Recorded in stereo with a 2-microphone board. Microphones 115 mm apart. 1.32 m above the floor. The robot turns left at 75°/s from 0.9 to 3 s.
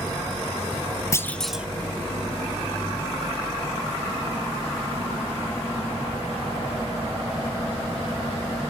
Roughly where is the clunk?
Ahead left.